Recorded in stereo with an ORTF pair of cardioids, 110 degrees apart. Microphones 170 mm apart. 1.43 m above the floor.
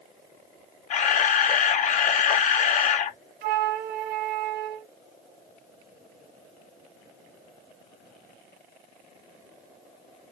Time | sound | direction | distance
0.9 | a camera shutter | 50° left | 0.8 m
3.4 | a flute | 65° right | 0.7 m